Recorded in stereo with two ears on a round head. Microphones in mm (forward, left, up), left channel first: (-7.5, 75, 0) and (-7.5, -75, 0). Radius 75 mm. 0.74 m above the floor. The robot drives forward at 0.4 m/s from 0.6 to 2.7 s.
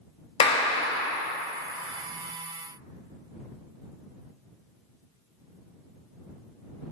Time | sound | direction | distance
0.4 | a clap | 30° left (ahead or behind) | 0.5 m